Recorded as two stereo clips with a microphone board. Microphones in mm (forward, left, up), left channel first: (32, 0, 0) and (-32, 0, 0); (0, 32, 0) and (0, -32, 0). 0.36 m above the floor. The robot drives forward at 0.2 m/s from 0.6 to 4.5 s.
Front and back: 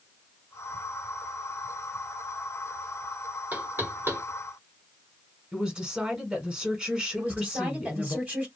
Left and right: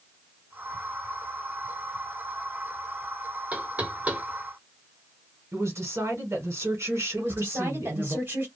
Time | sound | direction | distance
3.5 | knocking | 140° right | 0.7 m
5.5 | a woman speaking | 110° right | 1.4 m
7.2 | a woman speaking | 125° right | 1.7 m